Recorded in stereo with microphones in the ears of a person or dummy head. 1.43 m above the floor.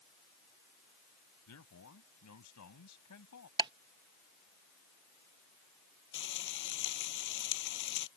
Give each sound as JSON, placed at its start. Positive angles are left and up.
{"t": 1.5, "sound": "a man speaking", "side_deg": 85}
{"t": 3.6, "sound": "ticking", "side_deg": -25}
{"t": 6.1, "sound": "frying", "side_deg": 55}